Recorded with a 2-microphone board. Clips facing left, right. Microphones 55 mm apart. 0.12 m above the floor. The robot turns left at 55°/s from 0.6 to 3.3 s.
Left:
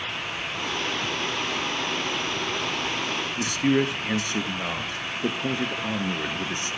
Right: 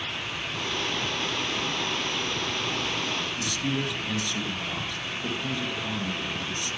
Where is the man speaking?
45° left (ahead or behind), 2.5 m.